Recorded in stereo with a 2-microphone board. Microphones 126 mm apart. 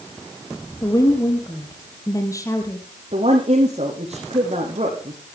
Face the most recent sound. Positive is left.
turn(degrees=-55)  # may be behind; listen again after turning